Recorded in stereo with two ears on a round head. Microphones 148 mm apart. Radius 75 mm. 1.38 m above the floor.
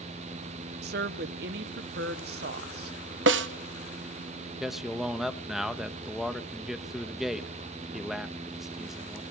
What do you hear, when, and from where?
0.8 s a woman speaking: 70° right (ahead or behind), 1.0 m
3.3 s a snare drum: 80° right, 1.0 m
4.6 s a man speaking: centre (ahead or behind), 1.2 m